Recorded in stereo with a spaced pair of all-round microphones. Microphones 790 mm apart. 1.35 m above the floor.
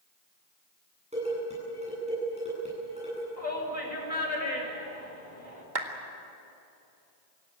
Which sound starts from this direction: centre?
Dishes clattering, at 1.1 s.